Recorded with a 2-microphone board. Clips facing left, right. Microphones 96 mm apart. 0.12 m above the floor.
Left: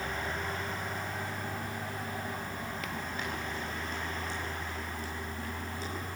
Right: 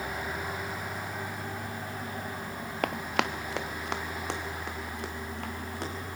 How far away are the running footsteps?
About 0.7 m.